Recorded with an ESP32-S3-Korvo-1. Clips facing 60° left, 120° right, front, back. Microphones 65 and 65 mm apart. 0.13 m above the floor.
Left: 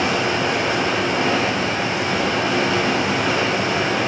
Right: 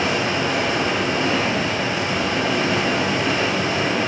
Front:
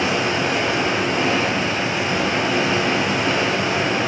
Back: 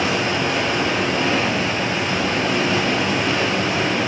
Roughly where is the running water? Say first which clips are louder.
Left 1 dB, even; ahead left.